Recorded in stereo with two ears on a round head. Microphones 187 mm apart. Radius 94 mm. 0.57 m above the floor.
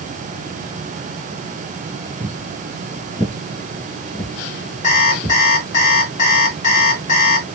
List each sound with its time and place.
2.2 s footsteps: 30° right (ahead or behind), 0.6 m; by 5.4 s 20° left (ahead or behind), 1.5 m
4.8 s an alarm clock: 40° left (ahead or behind), 1.2 m